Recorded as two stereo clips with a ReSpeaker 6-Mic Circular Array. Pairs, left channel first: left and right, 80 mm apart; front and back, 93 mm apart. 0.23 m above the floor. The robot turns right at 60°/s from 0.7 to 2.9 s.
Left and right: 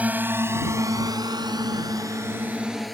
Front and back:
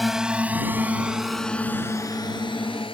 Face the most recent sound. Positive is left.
turn(degrees=0)